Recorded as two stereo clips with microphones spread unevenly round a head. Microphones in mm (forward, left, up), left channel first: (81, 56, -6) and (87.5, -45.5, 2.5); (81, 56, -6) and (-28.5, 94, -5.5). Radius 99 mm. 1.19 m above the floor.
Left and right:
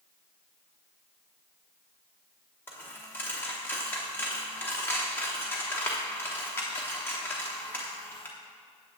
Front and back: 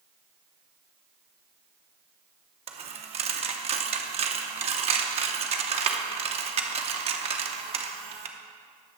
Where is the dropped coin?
170° left, 0.9 m.